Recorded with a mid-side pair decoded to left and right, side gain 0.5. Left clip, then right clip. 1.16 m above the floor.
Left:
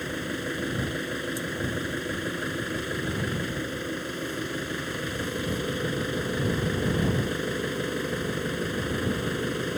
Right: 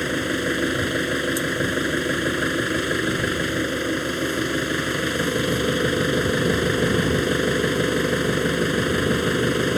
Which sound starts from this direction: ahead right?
An engine running, at 0.0 s.